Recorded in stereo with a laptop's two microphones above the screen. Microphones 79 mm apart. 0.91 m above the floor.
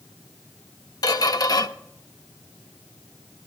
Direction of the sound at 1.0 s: 60° left (ahead or behind).